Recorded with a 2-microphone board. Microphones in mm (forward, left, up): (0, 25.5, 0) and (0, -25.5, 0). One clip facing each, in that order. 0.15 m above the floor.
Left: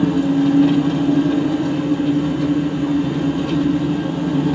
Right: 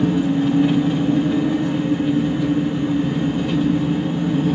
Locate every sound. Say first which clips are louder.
0.0 s an engine running: left 2 dB; 65° left (ahead or behind), 1.4 m